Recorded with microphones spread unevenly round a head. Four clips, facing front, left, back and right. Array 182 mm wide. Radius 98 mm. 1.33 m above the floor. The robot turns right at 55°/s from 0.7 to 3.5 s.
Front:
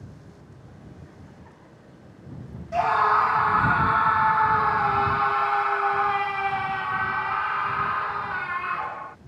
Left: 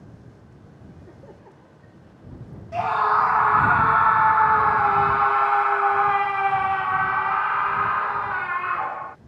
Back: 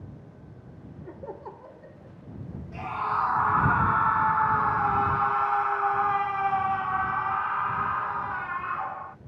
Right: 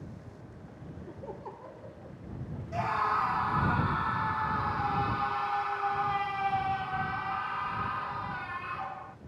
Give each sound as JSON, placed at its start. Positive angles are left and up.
{"t": 1.1, "sound": "laughter", "azimuth_deg": 180}
{"t": 2.7, "sound": "a scream", "azimuth_deg": 25}